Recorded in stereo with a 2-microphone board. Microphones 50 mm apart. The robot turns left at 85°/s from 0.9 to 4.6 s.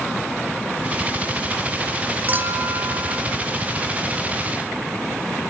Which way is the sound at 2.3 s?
35° right.